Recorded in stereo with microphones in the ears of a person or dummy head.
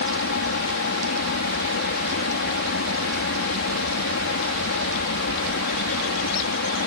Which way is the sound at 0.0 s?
60° left (ahead or behind).